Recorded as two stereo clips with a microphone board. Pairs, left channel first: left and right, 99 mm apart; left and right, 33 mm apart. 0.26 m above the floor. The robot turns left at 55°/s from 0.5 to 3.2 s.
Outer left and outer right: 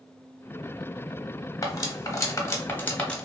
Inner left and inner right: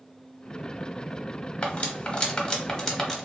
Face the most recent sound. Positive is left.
turn(degrees=5)  # may be behind; listen again after turning